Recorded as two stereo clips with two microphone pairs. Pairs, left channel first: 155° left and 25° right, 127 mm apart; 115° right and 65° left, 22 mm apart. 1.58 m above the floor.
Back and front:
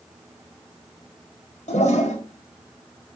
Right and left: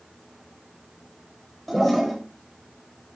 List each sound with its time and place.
1.7 s a toilet flushing: 165° left, 4 m